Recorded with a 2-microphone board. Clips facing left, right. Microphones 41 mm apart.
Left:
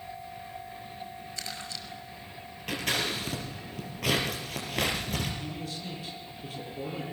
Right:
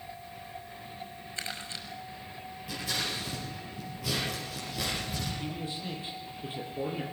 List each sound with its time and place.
1.4 s crumpling: 30° right (ahead or behind), 5.5 m
2.7 s scissors: 85° left, 6 m
5.4 s a man speaking: 25° right (ahead or behind), 8 m